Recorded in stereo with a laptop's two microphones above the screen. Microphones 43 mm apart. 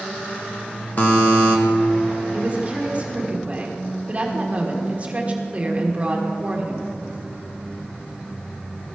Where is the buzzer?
45° left (ahead or behind), 1.0 m.